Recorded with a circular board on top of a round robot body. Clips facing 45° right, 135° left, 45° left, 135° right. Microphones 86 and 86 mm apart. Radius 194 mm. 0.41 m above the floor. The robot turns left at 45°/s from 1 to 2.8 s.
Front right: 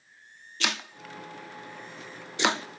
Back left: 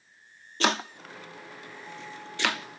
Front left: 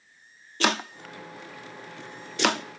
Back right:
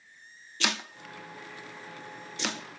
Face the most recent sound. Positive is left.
turn(degrees=5)